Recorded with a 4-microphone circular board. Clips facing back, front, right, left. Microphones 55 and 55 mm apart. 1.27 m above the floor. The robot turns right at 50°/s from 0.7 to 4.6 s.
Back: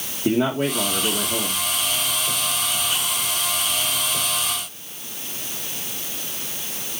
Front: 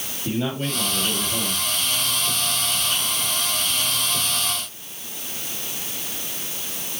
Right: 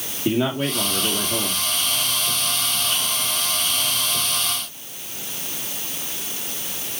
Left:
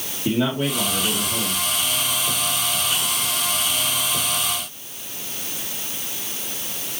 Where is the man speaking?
165° right, 2 m; by 1.6 s 120° right, 2 m.